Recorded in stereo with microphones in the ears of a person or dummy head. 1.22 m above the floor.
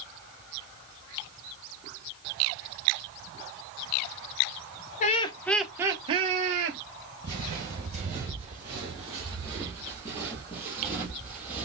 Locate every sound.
5.0 s laughter: 40° left (ahead or behind), 0.7 m; by 6.8 s 50° right (ahead or behind), 1.3 m
7.2 s footsteps: 25° right (ahead or behind), 1.4 m; by 11.7 s 10° right (ahead or behind), 2 m